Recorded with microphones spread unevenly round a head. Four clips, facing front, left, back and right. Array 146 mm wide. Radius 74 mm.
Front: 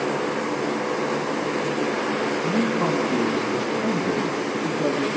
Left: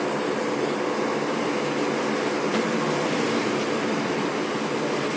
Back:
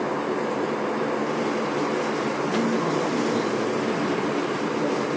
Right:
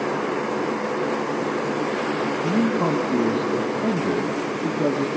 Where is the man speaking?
65° right, 0.8 m.